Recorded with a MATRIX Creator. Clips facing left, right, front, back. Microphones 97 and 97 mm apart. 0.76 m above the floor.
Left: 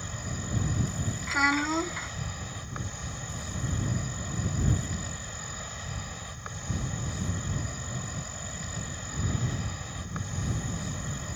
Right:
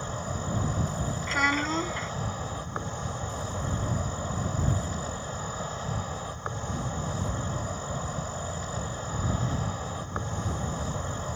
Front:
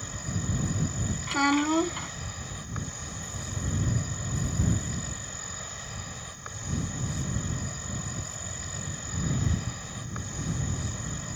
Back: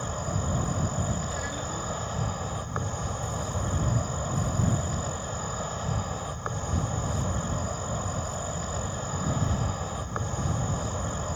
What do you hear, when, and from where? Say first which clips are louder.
0.0 s an insect: right 5 dB, back 5 dB; 140° right
1.3 s a child speaking: left 1 dB, front 10 dB; 5° left